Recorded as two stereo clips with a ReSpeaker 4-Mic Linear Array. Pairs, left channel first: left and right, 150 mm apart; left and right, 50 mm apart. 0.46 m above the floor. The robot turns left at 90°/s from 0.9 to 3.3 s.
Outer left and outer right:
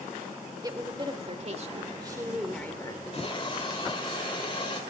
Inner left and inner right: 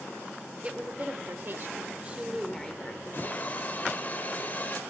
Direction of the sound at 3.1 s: 45° left (ahead or behind).